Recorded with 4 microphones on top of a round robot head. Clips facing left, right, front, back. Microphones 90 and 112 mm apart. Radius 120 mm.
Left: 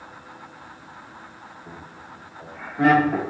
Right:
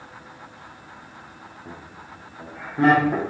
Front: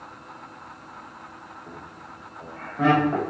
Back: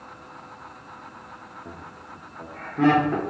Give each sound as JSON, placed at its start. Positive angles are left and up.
{"t": 1.6, "sound": "laughter", "azimuth_deg": -160, "distance_m": 1.3}